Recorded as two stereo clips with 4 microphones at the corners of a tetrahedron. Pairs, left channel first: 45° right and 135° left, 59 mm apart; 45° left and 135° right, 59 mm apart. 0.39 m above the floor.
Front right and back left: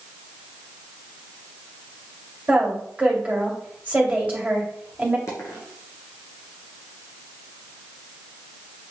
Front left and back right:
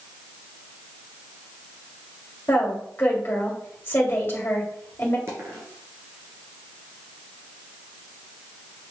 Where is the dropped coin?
90° right, 2.5 m.